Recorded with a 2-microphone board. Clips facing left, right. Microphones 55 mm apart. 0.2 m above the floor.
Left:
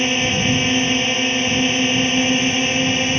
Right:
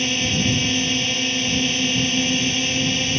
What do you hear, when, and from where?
0.0 s a drone: 30° left (ahead or behind)